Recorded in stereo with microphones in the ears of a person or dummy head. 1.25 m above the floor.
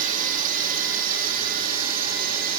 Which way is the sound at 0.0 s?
45° right (ahead or behind).